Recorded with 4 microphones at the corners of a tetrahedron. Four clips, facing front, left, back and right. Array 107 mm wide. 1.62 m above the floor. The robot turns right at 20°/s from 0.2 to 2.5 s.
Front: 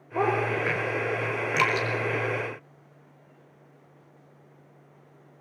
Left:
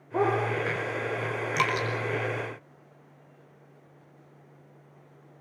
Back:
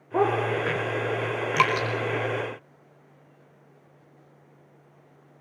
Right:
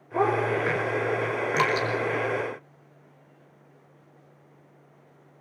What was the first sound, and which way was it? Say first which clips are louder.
A dog barking: right 2 dB, back 2 dB; 170° left.